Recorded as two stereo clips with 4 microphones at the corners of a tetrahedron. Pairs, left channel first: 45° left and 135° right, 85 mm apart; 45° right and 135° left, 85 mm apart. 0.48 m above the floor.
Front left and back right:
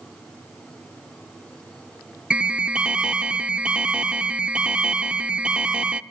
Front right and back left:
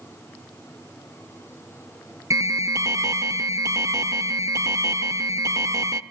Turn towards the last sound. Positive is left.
turn(degrees=150)